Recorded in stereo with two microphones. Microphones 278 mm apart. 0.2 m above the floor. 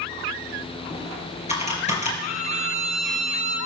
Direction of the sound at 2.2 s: 70° right (ahead or behind).